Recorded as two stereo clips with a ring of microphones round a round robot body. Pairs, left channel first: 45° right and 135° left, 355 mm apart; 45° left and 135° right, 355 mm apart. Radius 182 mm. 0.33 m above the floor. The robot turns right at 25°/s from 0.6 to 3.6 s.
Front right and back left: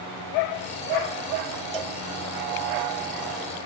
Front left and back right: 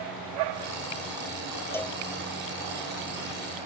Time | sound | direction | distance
1.7 | a cowbell | 130° left | ?